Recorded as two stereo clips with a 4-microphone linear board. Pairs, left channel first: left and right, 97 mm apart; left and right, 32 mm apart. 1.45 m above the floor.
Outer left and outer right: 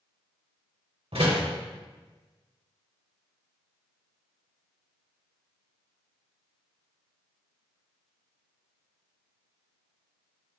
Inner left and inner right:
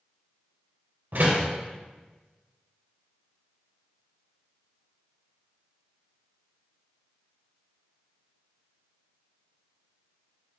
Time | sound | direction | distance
1.1 | a door slam | 75° right (ahead or behind) | 3.5 m